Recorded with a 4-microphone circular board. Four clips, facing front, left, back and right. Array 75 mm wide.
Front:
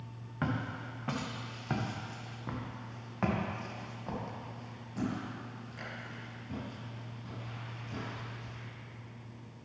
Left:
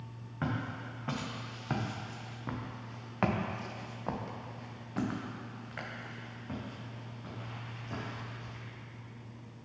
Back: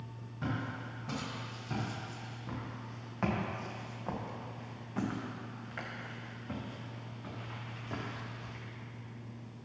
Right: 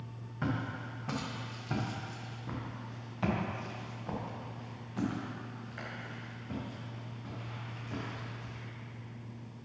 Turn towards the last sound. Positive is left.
turn(degrees=150)